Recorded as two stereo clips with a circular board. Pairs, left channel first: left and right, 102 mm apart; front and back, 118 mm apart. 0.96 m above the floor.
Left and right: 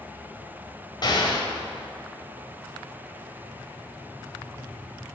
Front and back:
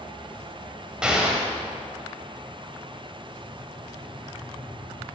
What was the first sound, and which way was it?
An explosion, 100° left.